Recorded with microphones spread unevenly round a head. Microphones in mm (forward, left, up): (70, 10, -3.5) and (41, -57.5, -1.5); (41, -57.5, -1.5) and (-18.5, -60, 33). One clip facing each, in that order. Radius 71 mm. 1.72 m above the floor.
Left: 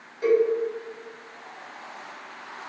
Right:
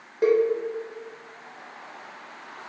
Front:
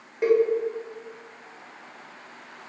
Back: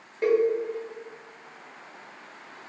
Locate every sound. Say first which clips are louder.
0.2 s a cowbell: even, front 2 dB; 105° right, 0.6 m